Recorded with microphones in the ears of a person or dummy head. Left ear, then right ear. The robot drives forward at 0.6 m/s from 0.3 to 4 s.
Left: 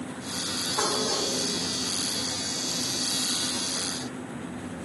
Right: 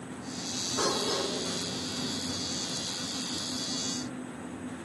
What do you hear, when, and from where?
0.8 s dishes clattering: 35° left (ahead or behind), 1.5 m; by 1.3 s 30° left (ahead or behind), 1.7 m